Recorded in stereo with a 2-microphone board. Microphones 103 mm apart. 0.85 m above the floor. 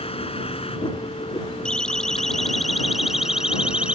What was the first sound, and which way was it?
A vehicle, 75° left (ahead or behind).